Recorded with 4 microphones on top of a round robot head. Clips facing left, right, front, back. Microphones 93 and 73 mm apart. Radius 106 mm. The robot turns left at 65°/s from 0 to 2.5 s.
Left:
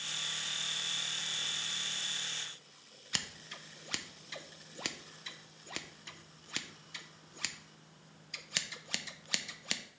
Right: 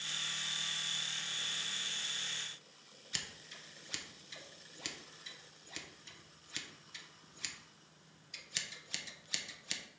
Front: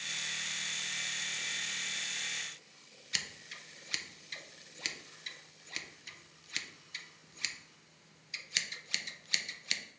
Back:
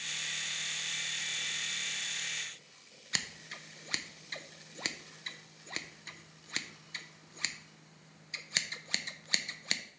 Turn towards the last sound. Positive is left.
turn(degrees=125)